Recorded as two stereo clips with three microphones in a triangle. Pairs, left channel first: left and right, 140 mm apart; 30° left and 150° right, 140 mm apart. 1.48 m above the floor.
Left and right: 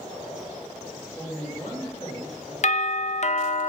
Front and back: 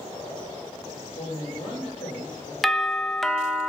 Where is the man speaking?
30° left, 4.5 m.